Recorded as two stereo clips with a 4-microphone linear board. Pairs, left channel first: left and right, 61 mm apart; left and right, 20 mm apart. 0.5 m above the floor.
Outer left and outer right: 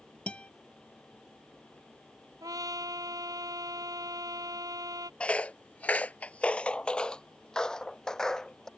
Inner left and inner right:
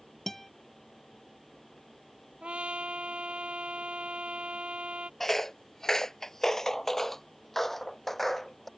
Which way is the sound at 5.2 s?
20° left (ahead or behind).